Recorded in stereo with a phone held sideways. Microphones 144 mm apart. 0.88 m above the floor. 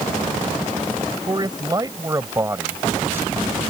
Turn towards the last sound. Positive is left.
turn(degrees=-10)  # may be behind; listen again after turning